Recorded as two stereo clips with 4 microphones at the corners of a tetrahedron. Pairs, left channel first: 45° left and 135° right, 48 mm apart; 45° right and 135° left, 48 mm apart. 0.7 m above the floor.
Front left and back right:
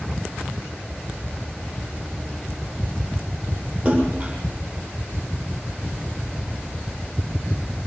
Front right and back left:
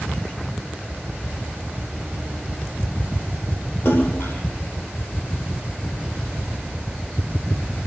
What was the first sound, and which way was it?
A splash, 65° right.